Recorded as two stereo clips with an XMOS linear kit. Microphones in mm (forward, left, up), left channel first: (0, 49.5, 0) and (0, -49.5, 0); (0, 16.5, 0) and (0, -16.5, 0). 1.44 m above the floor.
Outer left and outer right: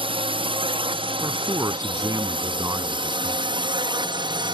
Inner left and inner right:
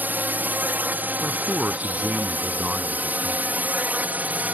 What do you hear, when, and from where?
0.0 s a drone: 65° right (ahead or behind); by 4.5 s 55° right (ahead or behind)
1.2 s a man speaking: 35° right (ahead or behind)